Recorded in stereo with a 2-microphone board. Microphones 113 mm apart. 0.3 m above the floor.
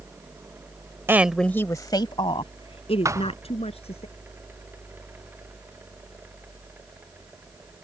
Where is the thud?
25° right (ahead or behind).